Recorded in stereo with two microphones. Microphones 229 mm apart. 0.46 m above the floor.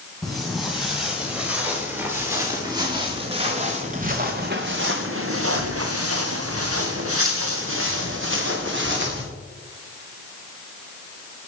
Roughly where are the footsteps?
Centre.